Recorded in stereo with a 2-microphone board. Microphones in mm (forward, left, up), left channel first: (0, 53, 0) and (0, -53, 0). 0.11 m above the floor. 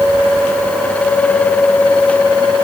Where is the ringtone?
No ringtone in this recording.